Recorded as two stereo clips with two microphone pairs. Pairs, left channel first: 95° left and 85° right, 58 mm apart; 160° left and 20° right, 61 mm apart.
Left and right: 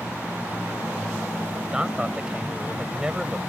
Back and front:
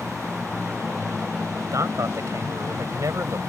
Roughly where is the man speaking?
Ahead.